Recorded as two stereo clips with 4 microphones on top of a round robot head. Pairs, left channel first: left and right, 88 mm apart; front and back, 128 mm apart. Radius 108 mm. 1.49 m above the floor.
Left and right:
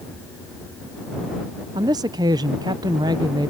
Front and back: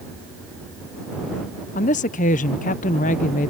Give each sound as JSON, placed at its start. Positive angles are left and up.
{"t": 1.7, "sound": "a woman speaking", "azimuth_deg": -35}